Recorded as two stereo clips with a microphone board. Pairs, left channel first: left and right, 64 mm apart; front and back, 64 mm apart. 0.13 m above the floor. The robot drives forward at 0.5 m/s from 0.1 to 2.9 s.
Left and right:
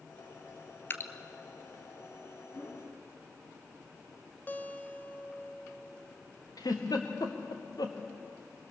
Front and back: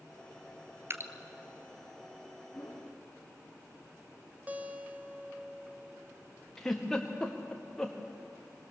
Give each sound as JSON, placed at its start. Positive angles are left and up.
{"t": 0.9, "sound": "dripping", "azimuth_deg": 135, "distance_m": 1.2}
{"t": 2.5, "sound": "a whoosh", "azimuth_deg": 65, "distance_m": 9.5}
{"t": 4.5, "sound": "a guitar", "azimuth_deg": 130, "distance_m": 1.4}
{"t": 6.6, "sound": "a giggle", "azimuth_deg": 80, "distance_m": 3.5}